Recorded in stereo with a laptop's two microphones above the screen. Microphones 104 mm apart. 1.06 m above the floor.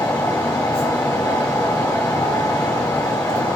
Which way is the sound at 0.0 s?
25° left (ahead or behind).